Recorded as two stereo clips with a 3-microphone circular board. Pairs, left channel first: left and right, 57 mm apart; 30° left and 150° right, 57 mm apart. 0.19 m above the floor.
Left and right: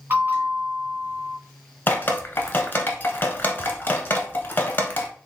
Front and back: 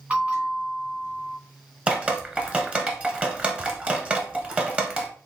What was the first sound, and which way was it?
A bell, 95° right.